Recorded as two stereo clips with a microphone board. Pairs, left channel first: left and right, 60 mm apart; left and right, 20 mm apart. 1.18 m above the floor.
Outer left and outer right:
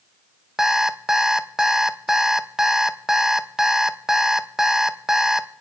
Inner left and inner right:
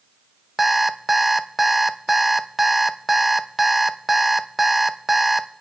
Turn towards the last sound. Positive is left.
turn(degrees=-10)  # may be behind; listen again after turning